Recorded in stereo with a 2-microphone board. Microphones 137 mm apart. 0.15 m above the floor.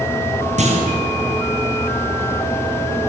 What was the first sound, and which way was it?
A clunk, 55° right (ahead or behind).